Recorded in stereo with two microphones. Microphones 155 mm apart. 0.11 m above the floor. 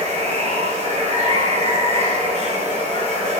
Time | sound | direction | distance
0.0 | running water | 45° right (ahead or behind) | 0.9 m